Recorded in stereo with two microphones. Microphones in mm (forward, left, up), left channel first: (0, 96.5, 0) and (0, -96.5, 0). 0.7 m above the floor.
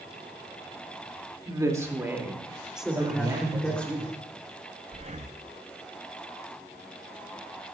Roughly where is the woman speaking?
Centre.